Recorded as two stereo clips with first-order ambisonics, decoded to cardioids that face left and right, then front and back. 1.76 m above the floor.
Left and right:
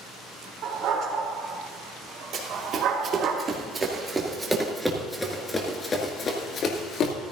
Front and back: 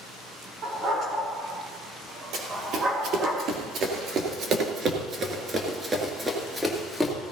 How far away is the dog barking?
About 3 m.